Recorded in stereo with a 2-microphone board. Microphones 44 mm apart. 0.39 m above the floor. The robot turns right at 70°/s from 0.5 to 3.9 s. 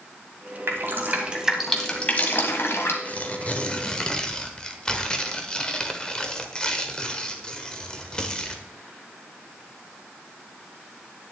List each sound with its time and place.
0.7 s dripping: 60° right (ahead or behind), 1.8 m; by 3.0 s 70° left (ahead or behind), 1.8 m
3.0 s tearing paper: 85° left, 1.2 m; by 8.7 s 145° left, 1.2 m